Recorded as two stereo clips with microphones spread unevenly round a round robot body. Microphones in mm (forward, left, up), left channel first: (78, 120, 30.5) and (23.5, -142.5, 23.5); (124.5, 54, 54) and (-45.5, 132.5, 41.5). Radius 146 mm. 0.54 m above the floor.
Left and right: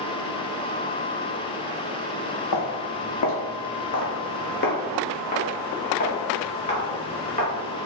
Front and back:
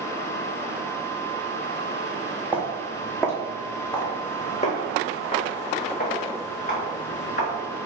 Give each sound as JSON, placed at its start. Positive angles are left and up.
{"t": 2.5, "sound": "footsteps", "azimuth_deg": 75, "distance_m": 1.1}